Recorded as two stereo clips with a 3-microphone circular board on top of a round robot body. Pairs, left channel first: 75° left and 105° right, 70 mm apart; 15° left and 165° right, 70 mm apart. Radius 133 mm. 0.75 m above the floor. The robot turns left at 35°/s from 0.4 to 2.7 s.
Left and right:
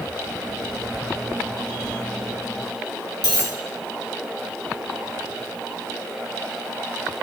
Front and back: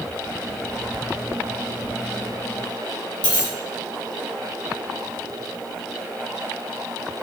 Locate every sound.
3.2 s a dropped coin: 40° left, 1.6 m